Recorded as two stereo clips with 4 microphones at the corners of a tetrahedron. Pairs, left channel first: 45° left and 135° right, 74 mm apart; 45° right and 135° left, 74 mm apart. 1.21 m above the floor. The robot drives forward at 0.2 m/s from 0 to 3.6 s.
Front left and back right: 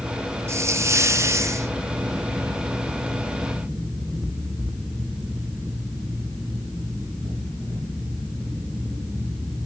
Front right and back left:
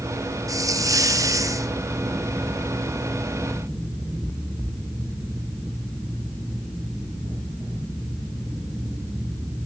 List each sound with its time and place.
0.5 s a hiss: 175° left, 0.6 m